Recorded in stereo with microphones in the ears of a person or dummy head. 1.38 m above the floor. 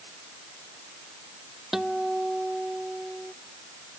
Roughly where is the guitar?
Centre.